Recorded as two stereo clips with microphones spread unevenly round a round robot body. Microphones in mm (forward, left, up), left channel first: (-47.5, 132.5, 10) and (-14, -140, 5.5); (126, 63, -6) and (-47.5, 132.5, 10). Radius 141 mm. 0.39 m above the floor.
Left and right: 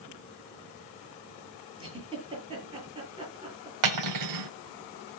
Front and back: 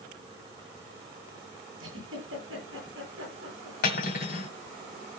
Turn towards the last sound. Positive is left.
turn(degrees=-75)